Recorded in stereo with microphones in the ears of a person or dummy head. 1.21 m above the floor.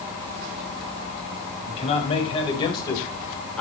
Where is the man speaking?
40° left (ahead or behind), 5.5 m; by 3.6 s 15° left (ahead or behind), 3.5 m.